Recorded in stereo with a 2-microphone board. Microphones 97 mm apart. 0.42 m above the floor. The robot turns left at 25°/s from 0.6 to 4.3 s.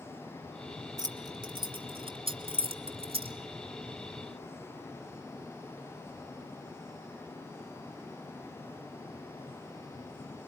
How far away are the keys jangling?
About 2 m.